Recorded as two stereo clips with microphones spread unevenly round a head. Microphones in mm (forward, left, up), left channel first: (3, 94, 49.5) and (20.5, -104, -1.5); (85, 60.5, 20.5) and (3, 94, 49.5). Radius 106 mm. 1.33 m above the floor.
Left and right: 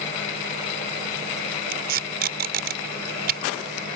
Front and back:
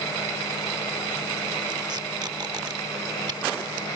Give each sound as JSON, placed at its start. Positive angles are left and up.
{"t": 1.7, "sound": "tape being pulled", "azimuth_deg": -135}